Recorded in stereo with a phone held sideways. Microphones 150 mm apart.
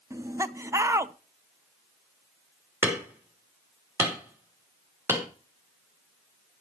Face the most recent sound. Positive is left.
turn(degrees=-15)  # may be behind; listen again after turning